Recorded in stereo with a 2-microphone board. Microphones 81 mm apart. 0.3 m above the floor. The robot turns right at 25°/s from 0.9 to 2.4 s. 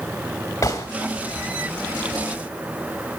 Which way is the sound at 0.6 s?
40° left (ahead or behind).